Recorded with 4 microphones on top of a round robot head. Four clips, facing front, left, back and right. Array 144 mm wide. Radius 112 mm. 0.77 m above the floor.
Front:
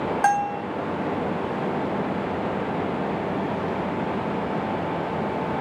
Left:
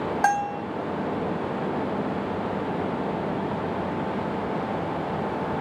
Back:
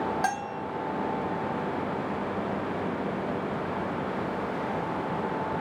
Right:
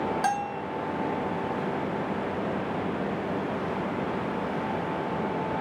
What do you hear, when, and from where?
0.2 s a bell: 50° left, 1.3 m